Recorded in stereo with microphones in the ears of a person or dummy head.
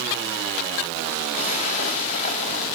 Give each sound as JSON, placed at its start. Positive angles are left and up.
{"t": 1.3, "sound": "a splash", "side_deg": 35, "distance_m": 1.9}